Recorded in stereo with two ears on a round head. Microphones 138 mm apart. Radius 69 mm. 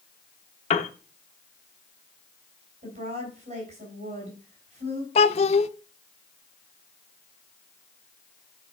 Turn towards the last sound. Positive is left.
turn(degrees=45)  # may be behind; listen again after turning